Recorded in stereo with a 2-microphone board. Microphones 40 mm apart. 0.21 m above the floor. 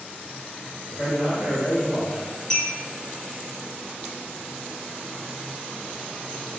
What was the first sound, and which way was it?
A man speaking, 10° right (ahead or behind).